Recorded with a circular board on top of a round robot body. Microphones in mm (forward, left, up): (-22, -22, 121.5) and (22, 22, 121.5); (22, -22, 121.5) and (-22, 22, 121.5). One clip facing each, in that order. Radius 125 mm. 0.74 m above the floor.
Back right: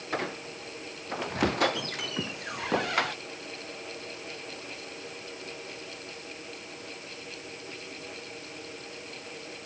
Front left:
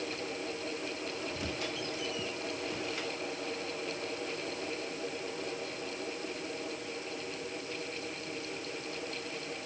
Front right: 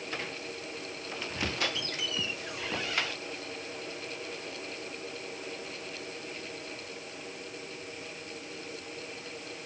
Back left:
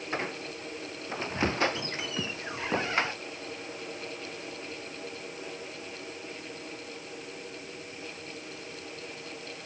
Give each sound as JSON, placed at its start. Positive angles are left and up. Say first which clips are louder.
{"t": 0.1, "sound": "a squeak", "louder": "back right 4 dB, back left 6 dB", "azimuth_deg": -165}